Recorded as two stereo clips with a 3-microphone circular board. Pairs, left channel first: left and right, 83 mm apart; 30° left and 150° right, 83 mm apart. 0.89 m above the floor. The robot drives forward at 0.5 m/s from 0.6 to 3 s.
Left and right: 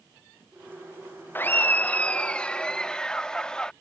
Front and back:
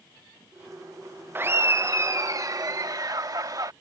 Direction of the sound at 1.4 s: 150° left.